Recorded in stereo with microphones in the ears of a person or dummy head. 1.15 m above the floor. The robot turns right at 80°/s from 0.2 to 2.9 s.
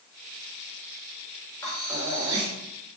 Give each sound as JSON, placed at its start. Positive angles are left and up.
{"t": 1.6, "sound": "breathing", "azimuth_deg": 175, "distance_m": 5.0}